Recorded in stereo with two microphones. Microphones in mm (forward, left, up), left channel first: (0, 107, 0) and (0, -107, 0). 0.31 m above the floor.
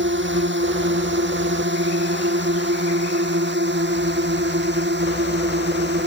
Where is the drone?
60° right (ahead or behind); by 6.1 s 55° right (ahead or behind).